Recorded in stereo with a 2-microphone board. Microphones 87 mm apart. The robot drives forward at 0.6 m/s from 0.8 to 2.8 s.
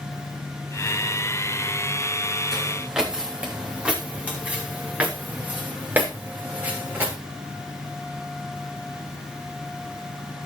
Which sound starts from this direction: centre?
Footsteps, at 2.5 s.